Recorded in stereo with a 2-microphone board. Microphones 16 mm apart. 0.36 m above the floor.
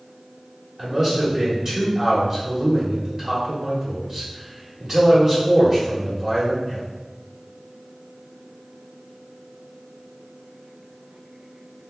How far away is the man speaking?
About 1.2 m.